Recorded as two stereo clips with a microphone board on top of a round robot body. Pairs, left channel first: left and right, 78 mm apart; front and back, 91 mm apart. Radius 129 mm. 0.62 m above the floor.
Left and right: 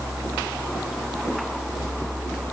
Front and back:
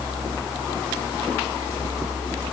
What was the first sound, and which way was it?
Only background noise.